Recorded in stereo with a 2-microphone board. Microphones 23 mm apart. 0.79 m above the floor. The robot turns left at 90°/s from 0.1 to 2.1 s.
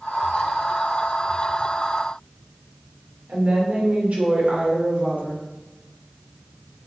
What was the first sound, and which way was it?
A woman speaking, 65° right (ahead or behind).